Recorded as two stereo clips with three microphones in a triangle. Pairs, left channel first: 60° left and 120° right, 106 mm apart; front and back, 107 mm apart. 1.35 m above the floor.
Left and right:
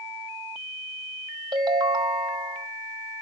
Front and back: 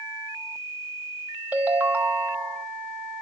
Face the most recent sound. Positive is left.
turn(degrees=-115)